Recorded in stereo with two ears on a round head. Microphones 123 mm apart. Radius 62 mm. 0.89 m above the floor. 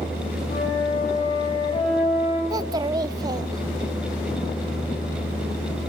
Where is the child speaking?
30° right (ahead or behind), 0.8 m.